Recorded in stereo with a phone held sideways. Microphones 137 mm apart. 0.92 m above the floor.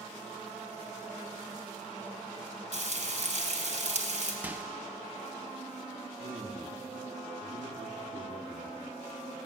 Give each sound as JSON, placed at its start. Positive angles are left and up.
{"t": 2.7, "sound": "frying", "side_deg": -60, "distance_m": 3.0}
{"t": 4.4, "sound": "a microwave", "side_deg": -15, "distance_m": 0.7}
{"t": 6.2, "sound": "a man speaking", "side_deg": -65, "distance_m": 1.9}